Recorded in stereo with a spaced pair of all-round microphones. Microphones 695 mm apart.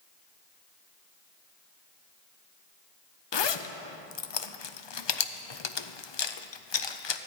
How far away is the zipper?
About 0.5 m.